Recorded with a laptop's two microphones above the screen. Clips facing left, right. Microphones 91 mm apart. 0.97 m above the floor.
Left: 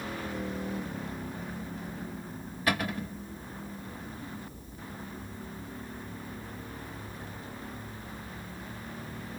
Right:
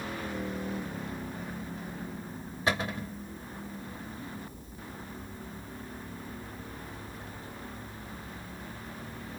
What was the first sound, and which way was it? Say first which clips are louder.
A cupboard door: even; 25° right (ahead or behind).